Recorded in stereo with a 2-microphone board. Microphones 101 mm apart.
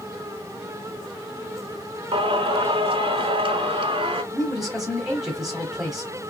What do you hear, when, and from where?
2.1 s singing: 60° right (ahead or behind), 0.9 m
4.3 s a man speaking: 5° right (ahead or behind), 1.0 m